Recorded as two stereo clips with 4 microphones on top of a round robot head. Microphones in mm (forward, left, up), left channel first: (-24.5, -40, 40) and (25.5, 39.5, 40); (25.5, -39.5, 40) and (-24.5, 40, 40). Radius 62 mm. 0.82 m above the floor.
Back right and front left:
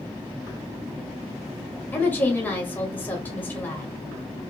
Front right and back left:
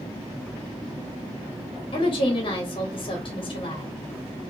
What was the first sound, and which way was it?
A woman speaking, 55° right.